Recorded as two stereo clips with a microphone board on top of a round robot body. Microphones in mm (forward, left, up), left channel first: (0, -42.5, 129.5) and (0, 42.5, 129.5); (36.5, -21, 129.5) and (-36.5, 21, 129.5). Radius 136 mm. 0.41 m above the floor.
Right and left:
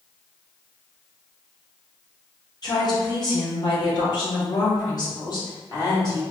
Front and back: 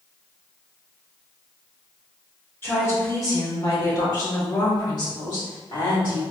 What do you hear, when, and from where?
2.6 s a woman speaking: 85° right, 2 m; by 6.2 s 50° right, 4 m